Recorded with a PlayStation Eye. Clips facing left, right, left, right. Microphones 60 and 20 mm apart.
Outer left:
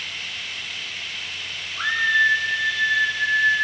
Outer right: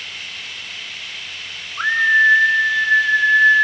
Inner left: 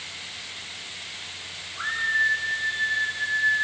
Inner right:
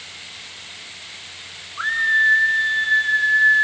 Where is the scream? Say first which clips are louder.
Outer right 5 dB, inner right 6 dB; 25° right (ahead or behind), 1.1 m; by 3.6 s 55° right (ahead or behind), 2 m.